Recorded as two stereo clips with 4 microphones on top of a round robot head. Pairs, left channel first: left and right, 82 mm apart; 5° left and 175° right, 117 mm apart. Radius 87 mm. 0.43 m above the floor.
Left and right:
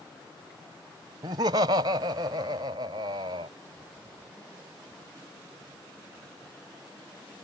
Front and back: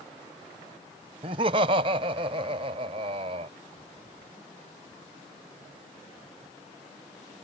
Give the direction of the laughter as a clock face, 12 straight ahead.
4 o'clock.